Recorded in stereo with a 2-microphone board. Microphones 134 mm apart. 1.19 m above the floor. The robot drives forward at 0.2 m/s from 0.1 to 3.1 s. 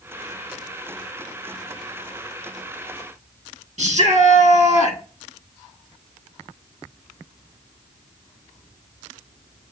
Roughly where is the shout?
Right.